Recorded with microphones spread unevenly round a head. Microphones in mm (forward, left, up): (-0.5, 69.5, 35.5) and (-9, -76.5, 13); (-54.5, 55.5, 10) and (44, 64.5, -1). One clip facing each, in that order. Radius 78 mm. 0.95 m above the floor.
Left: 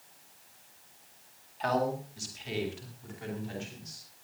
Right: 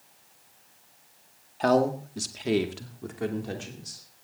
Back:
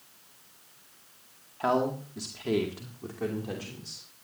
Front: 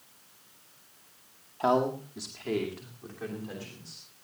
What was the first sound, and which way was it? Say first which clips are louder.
A man speaking: right 7 dB, front 1 dB; 65° right.